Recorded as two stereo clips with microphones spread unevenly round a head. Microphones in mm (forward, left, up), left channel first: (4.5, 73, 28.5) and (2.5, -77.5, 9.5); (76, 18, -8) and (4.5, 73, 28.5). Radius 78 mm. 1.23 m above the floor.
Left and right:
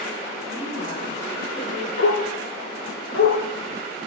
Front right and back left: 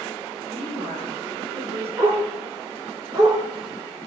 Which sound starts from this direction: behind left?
A woman speaking, at 0.5 s.